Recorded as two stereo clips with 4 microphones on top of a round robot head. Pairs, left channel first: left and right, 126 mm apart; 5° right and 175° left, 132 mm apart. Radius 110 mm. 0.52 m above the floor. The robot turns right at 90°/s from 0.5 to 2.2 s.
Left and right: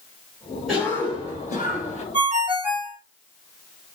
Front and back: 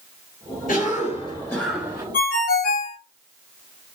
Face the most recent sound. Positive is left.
turn(degrees=-5)